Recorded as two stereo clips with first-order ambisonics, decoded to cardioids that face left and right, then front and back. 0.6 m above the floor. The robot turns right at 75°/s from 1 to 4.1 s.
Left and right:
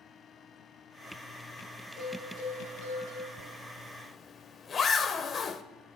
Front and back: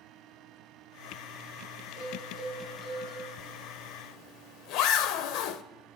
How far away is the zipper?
About 0.5 m.